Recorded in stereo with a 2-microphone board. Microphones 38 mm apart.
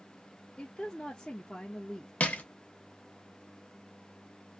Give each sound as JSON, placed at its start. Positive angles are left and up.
{"t": 0.6, "sound": "a woman speaking", "side_deg": 25, "distance_m": 0.5}
{"t": 2.2, "sound": "crushing", "side_deg": 40, "distance_m": 0.7}